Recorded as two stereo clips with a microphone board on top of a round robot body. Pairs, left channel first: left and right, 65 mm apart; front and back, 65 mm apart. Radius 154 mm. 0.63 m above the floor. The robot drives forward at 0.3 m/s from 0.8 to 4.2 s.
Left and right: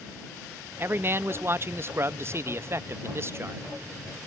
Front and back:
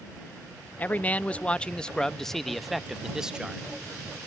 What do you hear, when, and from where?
0.8 s a man speaking: 55° right; by 3.6 s 110° right